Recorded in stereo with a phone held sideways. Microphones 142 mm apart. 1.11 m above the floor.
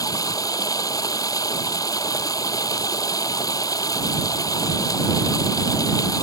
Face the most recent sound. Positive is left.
turn(degrees=25)  # may be behind; listen again after turning